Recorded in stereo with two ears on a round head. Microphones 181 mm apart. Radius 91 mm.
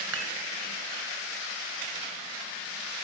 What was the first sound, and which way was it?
Dishes clattering, 75° right (ahead or behind).